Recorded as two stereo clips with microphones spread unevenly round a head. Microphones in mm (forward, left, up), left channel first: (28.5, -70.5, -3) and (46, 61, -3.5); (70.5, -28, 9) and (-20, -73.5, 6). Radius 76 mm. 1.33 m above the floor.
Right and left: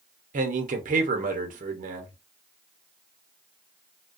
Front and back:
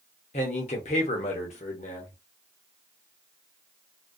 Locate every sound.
0.3 s a man speaking: 60° left, 0.8 m